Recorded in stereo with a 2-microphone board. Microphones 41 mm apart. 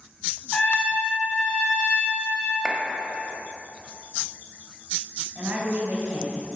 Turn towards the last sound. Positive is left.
turn(degrees=-45)  # may be behind; listen again after turning